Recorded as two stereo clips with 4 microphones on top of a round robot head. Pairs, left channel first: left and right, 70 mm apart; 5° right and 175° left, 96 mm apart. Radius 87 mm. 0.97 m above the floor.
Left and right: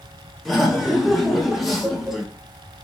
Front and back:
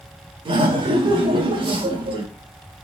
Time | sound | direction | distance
0.5 | laughter | straight behind | 1.2 m